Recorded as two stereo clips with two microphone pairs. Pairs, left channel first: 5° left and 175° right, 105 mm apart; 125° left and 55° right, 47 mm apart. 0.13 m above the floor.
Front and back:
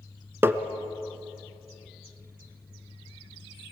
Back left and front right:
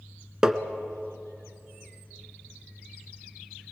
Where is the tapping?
120° right, 0.9 m.